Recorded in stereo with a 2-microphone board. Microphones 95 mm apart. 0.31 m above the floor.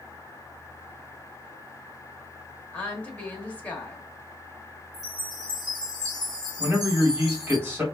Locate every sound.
2.7 s a woman speaking: 15° left (ahead or behind), 0.9 m
4.9 s a chime: 40° right (ahead or behind), 1.4 m
6.6 s a man speaking: 20° right (ahead or behind), 1.6 m